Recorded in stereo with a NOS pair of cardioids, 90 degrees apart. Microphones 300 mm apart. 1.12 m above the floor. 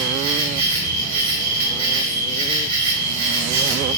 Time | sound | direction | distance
0.0 | an insect | 70° right | 1.2 m